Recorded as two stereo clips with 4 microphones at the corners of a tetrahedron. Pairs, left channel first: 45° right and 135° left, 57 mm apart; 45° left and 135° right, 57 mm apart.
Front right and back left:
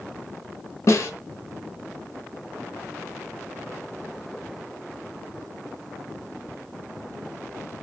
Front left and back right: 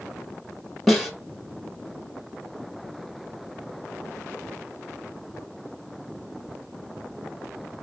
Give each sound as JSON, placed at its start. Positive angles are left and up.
{"t": 0.9, "sound": "a snare drum", "azimuth_deg": -45, "distance_m": 1.0}